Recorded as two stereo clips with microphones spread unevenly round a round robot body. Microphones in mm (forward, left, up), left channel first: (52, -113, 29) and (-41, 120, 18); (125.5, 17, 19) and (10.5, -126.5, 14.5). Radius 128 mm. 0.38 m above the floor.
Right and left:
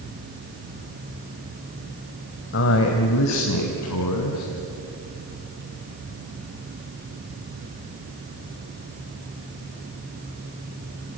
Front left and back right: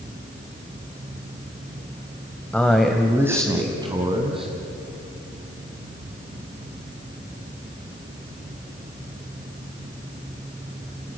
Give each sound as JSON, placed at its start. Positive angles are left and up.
{"t": 2.5, "sound": "a man speaking", "azimuth_deg": -30, "distance_m": 1.9}